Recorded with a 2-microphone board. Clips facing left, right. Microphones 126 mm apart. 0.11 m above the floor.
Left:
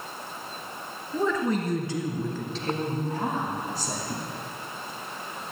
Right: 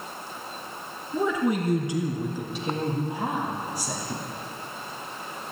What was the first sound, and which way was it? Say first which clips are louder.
A woman speaking: right 1 dB; 10° right (ahead or behind).